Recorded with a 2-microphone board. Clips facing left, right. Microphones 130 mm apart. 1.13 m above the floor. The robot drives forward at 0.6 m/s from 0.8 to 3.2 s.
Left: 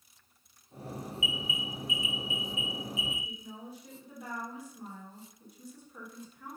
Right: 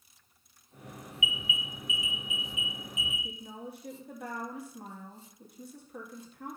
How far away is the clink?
I don't hear a clink.